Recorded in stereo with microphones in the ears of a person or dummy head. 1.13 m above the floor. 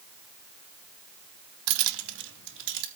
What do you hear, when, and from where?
1.7 s keys jangling: 75° right (ahead or behind), 0.7 m; by 2.9 s 60° right (ahead or behind), 1.7 m